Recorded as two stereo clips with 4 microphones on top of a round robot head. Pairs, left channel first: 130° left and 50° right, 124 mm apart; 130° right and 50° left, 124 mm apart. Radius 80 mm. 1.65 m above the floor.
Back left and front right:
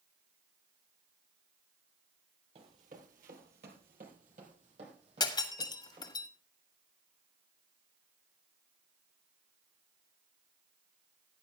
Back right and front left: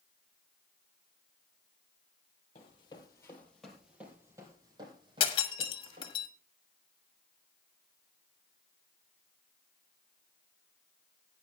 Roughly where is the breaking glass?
Behind.